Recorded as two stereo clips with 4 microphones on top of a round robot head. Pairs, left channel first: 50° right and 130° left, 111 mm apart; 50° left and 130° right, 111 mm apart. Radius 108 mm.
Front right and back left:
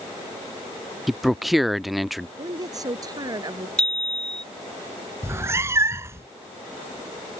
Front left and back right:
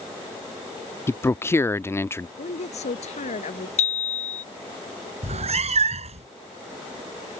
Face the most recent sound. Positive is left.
turn(degrees=-160)